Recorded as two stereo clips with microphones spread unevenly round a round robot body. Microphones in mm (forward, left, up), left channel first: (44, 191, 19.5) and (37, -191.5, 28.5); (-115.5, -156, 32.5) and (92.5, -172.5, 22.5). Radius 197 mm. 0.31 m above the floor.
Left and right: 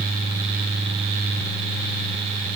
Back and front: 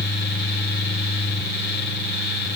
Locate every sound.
Only background noise.